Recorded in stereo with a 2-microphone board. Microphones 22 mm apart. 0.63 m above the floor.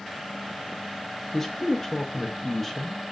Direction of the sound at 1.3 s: 15° left (ahead or behind).